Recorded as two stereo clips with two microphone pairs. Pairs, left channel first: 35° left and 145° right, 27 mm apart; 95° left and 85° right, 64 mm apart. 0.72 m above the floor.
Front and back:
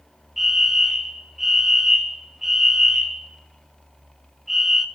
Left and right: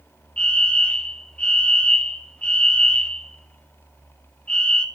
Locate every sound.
0.4 s a fire alarm: 145° left, 1.7 m